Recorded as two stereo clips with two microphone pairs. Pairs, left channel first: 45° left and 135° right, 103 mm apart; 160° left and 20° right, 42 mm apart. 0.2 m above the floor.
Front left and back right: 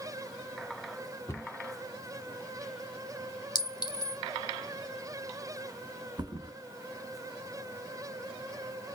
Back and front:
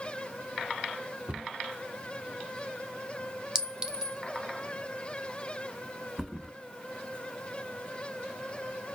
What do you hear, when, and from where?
1.3 s a cupboard door: straight ahead, 1.1 m
3.5 s a clink: 40° left, 0.9 m
6.2 s a thud: 100° right, 0.8 m